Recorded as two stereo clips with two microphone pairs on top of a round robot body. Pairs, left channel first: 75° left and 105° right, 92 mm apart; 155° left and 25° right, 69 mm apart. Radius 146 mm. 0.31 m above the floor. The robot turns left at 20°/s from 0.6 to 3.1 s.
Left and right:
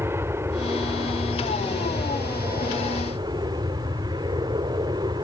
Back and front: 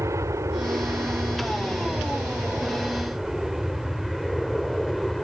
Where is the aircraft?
50° right; by 5.2 s 125° right.